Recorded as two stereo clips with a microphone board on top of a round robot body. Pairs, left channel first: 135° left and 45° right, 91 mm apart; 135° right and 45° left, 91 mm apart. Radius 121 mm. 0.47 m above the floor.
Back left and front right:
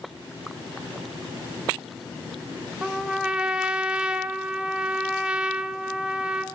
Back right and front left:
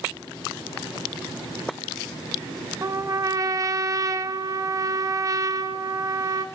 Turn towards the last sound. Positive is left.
turn(degrees=30)